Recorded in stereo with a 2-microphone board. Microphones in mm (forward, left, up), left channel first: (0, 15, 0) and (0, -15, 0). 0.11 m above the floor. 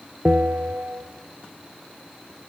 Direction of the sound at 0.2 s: 55° right (ahead or behind).